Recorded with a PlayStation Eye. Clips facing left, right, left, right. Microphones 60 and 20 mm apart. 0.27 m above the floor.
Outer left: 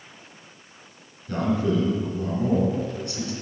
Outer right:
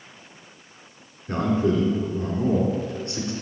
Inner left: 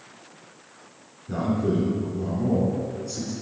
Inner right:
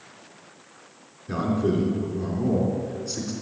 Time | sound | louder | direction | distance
1.3 | a man speaking | outer right 1 dB, inner right 1 dB | 30° right (ahead or behind) | 3.5 m